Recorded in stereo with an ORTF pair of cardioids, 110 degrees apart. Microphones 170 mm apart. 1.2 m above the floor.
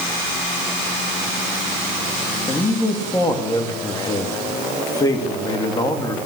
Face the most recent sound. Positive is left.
turn(degrees=20)